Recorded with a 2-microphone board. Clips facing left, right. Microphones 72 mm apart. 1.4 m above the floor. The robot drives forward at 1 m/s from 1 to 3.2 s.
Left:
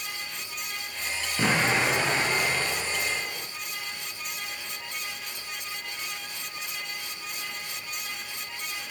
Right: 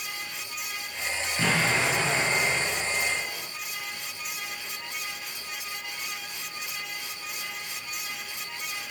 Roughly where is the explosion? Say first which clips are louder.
Left 1 dB; centre.